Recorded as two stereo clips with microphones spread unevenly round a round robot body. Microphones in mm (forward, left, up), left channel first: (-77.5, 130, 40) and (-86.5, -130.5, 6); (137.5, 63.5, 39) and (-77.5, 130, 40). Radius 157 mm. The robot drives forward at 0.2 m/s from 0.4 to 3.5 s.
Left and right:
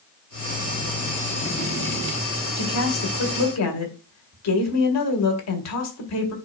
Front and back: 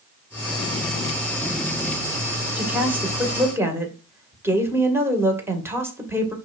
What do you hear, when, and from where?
2.6 s a woman speaking: 80° left, 2.5 m; by 6.3 s 85° left, 2.5 m